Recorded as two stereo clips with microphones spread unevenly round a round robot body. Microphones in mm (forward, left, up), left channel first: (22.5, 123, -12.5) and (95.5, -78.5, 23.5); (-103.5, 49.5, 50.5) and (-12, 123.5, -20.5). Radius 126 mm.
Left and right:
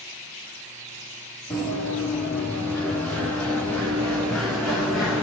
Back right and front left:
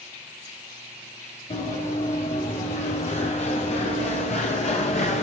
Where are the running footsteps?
165° right, 7 m; by 5.2 s 160° right, 4 m.